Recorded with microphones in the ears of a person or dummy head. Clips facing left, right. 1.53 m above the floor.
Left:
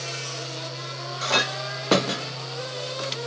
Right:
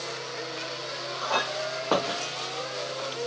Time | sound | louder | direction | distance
1.2 | a clink | left 2 dB | 30° left (ahead or behind) | ?